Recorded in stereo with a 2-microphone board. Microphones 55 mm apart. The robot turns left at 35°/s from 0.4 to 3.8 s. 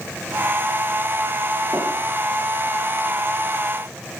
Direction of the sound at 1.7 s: 35° right (ahead or behind).